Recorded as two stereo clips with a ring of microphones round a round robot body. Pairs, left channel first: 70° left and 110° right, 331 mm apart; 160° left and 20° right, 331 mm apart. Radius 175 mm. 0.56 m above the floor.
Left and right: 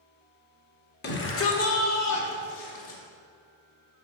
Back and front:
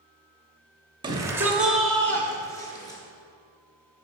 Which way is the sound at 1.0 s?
45° left.